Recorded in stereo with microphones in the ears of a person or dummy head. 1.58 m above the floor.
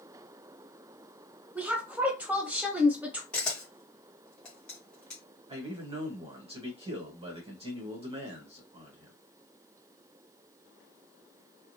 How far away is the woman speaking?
About 0.9 m.